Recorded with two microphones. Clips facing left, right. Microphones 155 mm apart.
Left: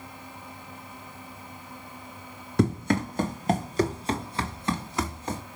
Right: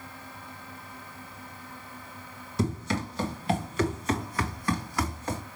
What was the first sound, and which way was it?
Running footsteps, 65° left (ahead or behind).